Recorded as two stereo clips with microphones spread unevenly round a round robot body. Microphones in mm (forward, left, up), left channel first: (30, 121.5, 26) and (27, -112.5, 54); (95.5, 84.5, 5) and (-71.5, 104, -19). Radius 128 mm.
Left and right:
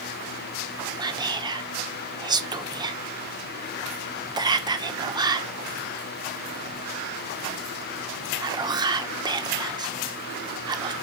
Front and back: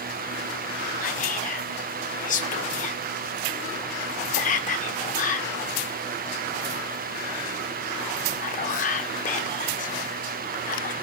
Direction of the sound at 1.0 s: 20° right.